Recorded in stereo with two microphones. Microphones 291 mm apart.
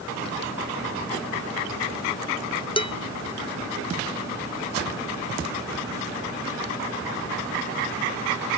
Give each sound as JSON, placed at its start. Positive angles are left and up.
{"t": 2.8, "sound": "dishes clattering", "side_deg": 15}